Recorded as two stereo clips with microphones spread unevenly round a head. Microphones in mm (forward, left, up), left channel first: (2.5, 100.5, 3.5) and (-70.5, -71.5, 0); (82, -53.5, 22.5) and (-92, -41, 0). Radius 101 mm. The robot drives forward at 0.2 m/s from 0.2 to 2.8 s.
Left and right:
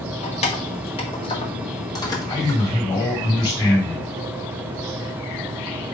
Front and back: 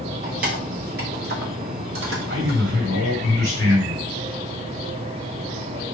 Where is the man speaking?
135° left, 2.0 m.